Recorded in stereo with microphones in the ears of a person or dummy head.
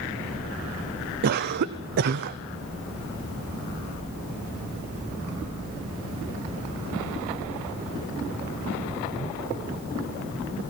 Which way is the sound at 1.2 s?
55° right (ahead or behind).